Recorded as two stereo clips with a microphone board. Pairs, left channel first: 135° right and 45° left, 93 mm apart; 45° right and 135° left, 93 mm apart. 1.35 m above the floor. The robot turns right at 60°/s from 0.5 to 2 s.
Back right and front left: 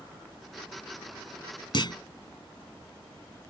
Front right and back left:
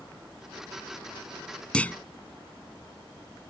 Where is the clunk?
120° right; by 2.0 s 110° right.